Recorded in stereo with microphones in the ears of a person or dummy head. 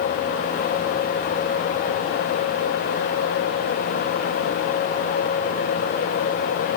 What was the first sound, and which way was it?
Only background noise.